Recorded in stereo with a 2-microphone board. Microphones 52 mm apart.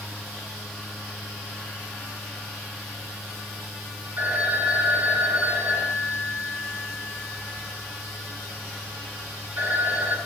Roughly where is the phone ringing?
Right.